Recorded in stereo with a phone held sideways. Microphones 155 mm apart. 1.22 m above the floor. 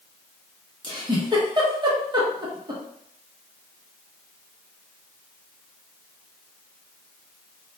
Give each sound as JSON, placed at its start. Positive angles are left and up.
{"t": 0.8, "sound": "a giggle", "side_deg": -30, "distance_m": 0.7}